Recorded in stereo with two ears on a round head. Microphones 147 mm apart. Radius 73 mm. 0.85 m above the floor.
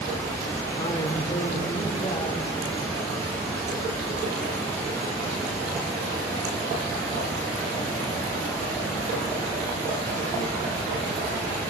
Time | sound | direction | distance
0.8 | a man speaking | 30° left (ahead or behind) | 2.5 m